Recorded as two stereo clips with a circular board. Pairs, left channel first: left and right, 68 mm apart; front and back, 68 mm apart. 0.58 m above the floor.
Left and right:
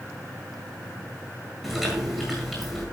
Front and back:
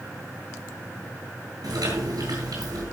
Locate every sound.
1.6 s chewing: 175° right, 9 m